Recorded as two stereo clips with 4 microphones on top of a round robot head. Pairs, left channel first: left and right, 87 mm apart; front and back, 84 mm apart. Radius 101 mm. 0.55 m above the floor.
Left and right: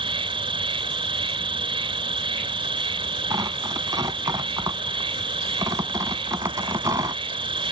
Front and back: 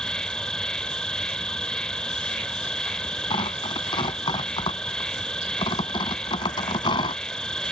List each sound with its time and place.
0.0 s an insect: 85° right
3.3 s tearing paper: 35° right